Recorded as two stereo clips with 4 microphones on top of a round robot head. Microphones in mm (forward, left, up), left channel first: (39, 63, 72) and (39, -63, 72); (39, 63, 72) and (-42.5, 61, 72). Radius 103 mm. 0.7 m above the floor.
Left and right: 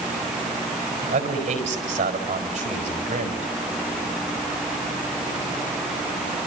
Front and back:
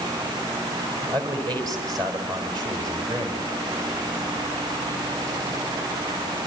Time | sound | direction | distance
1.0 | a man speaking | 130° right | 4.5 m